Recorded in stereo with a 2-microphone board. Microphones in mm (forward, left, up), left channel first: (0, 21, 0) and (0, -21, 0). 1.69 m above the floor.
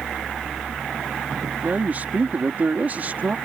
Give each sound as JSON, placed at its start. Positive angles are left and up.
{"t": 1.6, "sound": "a man speaking", "side_deg": -45}